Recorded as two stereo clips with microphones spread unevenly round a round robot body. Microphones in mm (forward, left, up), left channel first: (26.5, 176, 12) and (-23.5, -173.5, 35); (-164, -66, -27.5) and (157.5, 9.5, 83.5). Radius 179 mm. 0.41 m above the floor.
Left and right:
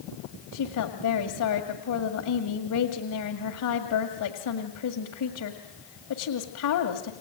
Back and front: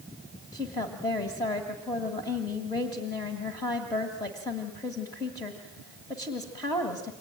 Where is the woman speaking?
120° left, 2.0 m.